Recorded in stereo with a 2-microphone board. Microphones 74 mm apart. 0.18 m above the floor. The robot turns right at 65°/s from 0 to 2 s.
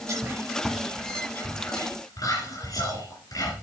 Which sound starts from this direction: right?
Whispering, at 0.1 s.